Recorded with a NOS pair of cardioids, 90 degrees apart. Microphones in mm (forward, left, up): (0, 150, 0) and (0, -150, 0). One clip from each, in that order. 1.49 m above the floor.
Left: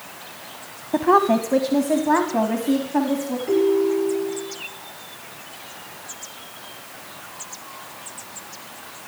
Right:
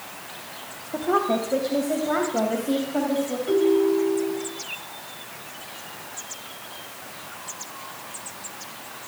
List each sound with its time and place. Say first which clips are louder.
0.9 s a woman speaking: left 6 dB; 45° left, 1.2 m; by 3.4 s 20° left, 4 m
3.5 s a ringtone: left 1 dB; 20° left, 5 m